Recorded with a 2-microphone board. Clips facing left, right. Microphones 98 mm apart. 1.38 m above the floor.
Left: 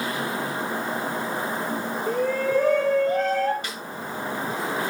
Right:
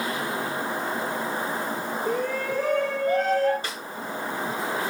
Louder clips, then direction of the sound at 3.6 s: Right 1 dB; 30° right (ahead or behind).